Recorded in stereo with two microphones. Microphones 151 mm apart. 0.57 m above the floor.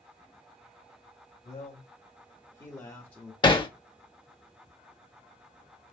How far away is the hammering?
About 0.7 m.